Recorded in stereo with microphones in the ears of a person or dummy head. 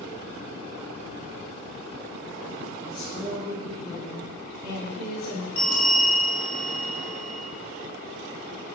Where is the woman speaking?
30° left (ahead or behind), 0.8 m; by 5.5 s 75° left (ahead or behind), 2 m.